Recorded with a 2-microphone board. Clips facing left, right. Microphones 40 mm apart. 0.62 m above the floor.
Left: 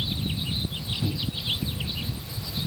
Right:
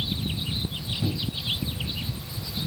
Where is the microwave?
5° right (ahead or behind), 3 m.